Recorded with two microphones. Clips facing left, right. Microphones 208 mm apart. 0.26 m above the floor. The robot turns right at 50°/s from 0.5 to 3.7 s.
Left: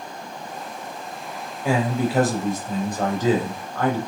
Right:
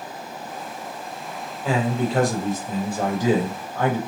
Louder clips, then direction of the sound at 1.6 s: Left 1 dB; 10° left (ahead or behind).